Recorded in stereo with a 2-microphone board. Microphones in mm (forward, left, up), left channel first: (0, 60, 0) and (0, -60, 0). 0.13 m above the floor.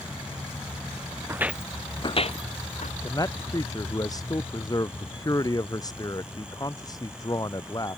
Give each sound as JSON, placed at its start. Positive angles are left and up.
{"t": 1.3, "sound": "footsteps", "side_deg": -20}
{"t": 3.0, "sound": "a man speaking", "side_deg": 30}